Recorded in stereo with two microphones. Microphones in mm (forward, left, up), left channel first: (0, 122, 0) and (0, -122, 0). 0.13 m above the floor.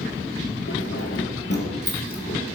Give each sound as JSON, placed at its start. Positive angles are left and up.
{"t": 0.7, "sound": "keys jangling", "side_deg": 60, "distance_m": 2.5}